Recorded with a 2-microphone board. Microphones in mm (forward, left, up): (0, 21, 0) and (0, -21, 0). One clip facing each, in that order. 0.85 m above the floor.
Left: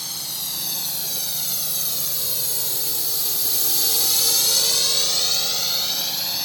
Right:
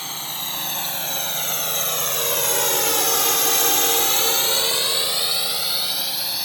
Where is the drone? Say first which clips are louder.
Right 3 dB; 35° right (ahead or behind); by 6.5 s 5° right (ahead or behind).